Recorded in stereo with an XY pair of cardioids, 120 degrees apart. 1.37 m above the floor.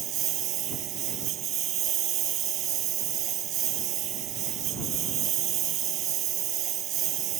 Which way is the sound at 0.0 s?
65° right.